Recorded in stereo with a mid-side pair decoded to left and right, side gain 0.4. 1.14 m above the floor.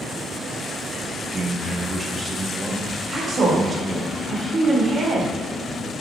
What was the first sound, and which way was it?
A man speaking, 30° right.